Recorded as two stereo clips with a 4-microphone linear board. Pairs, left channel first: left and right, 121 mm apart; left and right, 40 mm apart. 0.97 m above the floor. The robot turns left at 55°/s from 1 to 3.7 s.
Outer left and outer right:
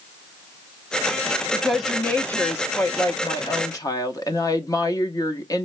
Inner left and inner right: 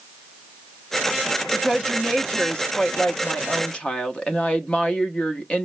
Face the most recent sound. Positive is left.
turn(degrees=30)  # may be behind; listen again after turning